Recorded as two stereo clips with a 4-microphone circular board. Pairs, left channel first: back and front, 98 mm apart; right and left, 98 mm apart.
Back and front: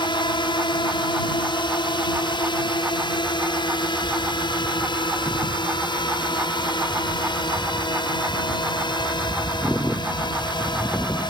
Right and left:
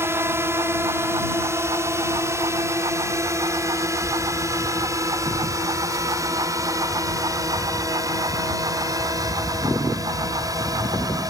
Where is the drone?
155° left; by 11.3 s 140° left.